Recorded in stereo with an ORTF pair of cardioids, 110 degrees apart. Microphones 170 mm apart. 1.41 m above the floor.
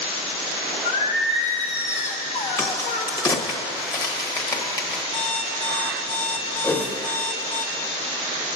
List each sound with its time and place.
0.8 s singing: 45° left, 1.1 m
2.6 s a crack: 20° left, 1.5 m
5.1 s an alarm clock: 35° left, 1.7 m
6.6 s a whoosh: 15° left, 1.2 m